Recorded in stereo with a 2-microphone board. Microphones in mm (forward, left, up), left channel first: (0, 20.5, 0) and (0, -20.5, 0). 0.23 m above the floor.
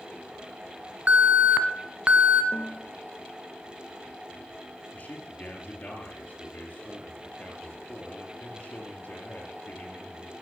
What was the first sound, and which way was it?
An alarm, 30° right (ahead or behind).